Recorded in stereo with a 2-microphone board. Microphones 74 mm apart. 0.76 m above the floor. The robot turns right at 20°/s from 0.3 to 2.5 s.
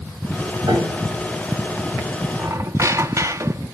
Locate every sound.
0.7 s a piano: 80° right, 5 m; by 1.0 s 75° right (ahead or behind), 5 m
2.4 s a squeak: 45° right (ahead or behind), 0.8 m; by 3.8 s 40° right (ahead or behind), 0.8 m